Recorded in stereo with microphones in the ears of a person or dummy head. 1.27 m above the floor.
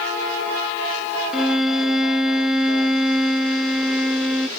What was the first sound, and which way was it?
A violin, 5° left (ahead or behind).